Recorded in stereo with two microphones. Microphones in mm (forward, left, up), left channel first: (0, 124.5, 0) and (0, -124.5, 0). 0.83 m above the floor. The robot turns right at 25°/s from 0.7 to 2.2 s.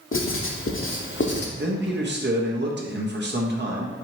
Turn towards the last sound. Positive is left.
turn(degrees=-45)  # may be behind; listen again after turning